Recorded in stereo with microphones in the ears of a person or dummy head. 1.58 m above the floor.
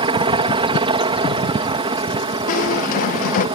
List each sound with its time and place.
0.0 s a helicopter: 35° right (ahead or behind)
2.5 s a squeak: 50° left (ahead or behind)